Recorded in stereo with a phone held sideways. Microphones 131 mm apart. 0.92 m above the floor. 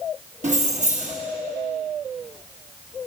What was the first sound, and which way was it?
Keys jangling, 60° right (ahead or behind).